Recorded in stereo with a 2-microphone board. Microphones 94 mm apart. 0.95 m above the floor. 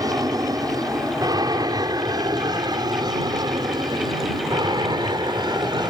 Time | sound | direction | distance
0.0 | an aircraft | 40° right (ahead or behind) | ?